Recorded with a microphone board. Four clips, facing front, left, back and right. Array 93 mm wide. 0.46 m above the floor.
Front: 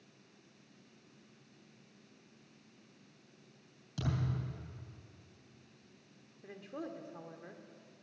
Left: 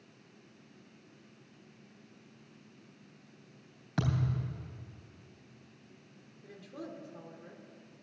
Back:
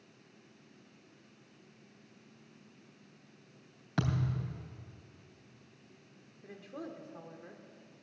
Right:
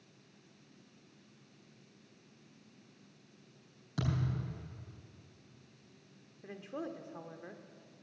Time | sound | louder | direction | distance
4.0 | a thud | left 3 dB, back 4 dB | 150° left | 3 m
6.4 | a woman speaking | right 4 dB, front 1 dB | 85° right | 0.9 m